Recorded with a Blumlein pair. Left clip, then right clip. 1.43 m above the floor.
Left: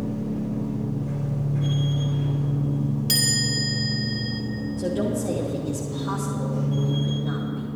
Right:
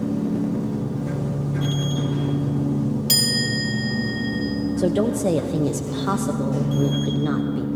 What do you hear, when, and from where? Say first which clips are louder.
0.0 s a machine running: right 5 dB; 35° right, 0.9 m
3.1 s a chime: right 2 dB; 5° right, 1.9 m
4.8 s a woman speaking: right 5 dB; 30° right, 0.6 m